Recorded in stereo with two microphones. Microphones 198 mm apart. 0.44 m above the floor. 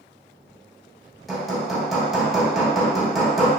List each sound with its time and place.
1.3 s hammering: centre (ahead or behind), 0.9 m